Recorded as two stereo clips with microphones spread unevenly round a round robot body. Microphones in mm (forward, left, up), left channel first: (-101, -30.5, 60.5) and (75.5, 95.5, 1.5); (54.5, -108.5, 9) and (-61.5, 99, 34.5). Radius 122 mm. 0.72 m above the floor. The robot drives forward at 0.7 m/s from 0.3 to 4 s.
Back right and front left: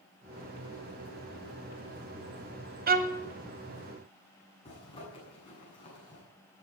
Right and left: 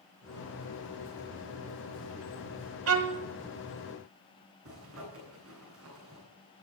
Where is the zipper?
150° left, 9 m.